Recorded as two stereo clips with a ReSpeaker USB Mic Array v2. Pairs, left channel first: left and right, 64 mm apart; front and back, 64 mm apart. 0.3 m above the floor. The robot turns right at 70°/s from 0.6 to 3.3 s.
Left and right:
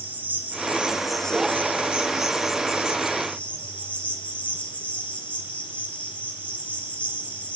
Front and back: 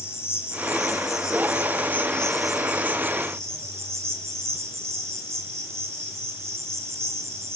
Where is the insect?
40° right, 1.7 m; by 7.6 s 150° left, 1.7 m.